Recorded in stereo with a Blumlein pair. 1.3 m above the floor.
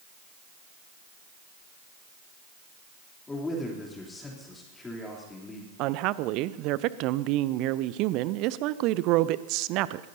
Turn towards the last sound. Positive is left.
turn(degrees=-40)